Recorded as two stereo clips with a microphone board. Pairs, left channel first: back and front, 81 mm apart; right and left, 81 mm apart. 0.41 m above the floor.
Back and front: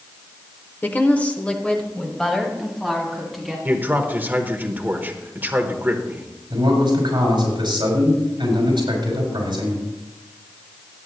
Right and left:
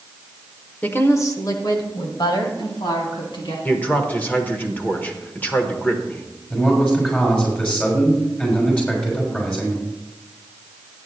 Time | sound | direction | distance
0.8 | a woman speaking | 140° right | 1.0 m
3.6 | a man speaking | 40° right | 1.1 m
6.5 | a man speaking | 15° right | 6 m